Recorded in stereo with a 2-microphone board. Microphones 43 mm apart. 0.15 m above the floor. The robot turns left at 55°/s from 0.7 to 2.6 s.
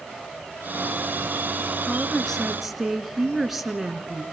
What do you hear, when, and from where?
1.9 s a woman speaking: 35° left, 2.0 m; by 4.2 s 10° right, 2.0 m